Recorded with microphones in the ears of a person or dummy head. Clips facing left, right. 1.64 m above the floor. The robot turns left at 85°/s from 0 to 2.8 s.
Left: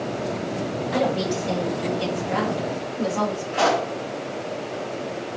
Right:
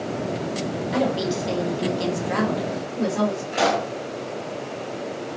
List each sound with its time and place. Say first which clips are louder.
0.9 s a woman speaking: even; straight ahead, 1.8 m; by 3.4 s 160° right, 1.8 m
3.5 s a pop: left 4 dB; 25° right (ahead or behind), 1.4 m